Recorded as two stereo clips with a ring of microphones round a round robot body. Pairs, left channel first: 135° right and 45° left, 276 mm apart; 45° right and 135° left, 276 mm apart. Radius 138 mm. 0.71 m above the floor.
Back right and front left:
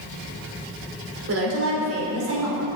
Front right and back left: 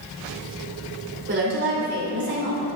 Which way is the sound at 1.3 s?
85° left.